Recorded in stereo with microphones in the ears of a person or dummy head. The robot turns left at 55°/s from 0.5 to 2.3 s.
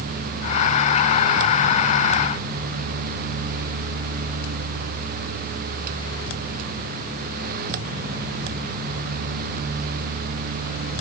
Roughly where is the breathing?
I don't hear breathing.